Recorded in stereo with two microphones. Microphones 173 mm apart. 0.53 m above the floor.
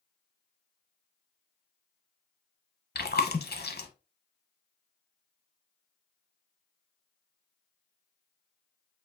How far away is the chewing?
About 0.7 m.